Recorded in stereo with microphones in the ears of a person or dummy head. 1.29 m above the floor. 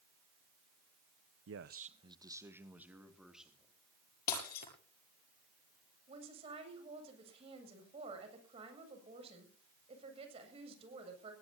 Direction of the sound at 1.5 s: 70° right (ahead or behind).